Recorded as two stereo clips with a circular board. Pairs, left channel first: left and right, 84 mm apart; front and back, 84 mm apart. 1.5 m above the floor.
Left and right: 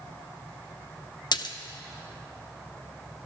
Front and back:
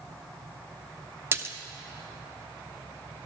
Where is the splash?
120° left, 0.7 m.